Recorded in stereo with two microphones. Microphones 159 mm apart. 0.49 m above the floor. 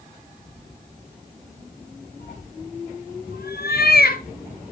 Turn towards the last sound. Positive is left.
turn(degrees=75)  # may be behind; listen again after turning